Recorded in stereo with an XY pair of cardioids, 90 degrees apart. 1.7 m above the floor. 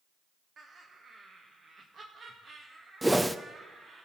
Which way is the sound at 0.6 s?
55° right.